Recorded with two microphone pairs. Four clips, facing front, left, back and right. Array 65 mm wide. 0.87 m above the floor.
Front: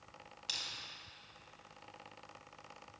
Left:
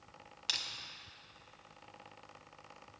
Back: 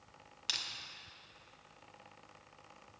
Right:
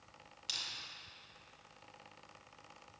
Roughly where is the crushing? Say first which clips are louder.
Left 5 dB, back 3 dB; behind left.